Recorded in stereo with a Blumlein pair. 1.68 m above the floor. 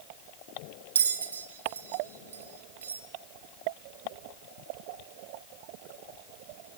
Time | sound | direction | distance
0.9 | a bell | 70° right | 2.0 m